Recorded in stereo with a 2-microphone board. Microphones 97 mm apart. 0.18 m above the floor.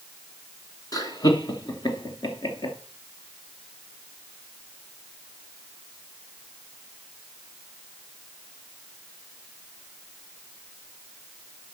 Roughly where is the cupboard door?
I don't hear a cupboard door.